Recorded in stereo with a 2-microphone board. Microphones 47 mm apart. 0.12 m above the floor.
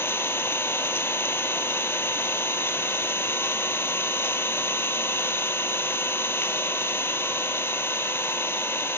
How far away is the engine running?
About 0.8 m.